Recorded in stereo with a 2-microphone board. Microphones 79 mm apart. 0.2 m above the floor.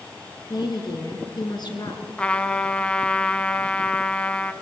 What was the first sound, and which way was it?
A woman speaking, 60° left (ahead or behind).